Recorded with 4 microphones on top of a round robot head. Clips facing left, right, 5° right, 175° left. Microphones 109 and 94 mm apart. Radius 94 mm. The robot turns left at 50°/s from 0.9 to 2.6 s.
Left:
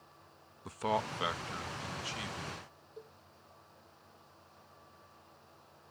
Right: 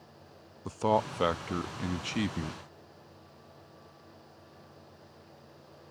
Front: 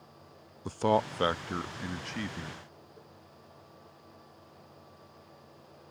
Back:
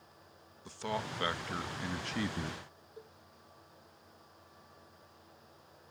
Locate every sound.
0.7 s a man speaking: 35° right; by 2.6 s 120° right
3.0 s a cowbell: 110° left